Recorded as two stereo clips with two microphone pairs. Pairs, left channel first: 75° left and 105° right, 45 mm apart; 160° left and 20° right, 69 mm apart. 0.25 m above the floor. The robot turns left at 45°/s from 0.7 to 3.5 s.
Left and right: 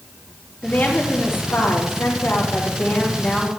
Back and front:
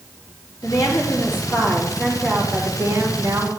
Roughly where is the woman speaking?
Behind left.